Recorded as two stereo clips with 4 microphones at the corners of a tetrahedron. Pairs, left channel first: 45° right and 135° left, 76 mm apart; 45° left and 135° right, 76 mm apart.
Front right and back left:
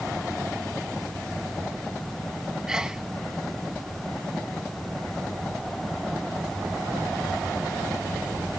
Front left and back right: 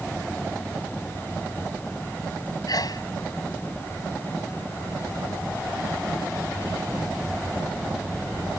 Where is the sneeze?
55° left.